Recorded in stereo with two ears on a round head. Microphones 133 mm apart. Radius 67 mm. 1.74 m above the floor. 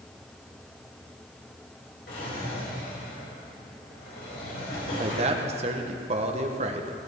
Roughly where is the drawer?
Left.